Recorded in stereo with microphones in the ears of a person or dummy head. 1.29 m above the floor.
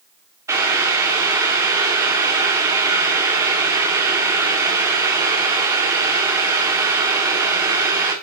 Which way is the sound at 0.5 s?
20° right (ahead or behind).